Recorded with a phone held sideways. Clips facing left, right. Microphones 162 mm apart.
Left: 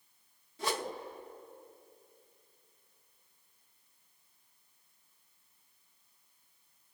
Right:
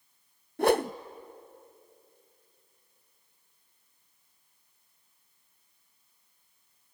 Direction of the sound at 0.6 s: 60° right (ahead or behind).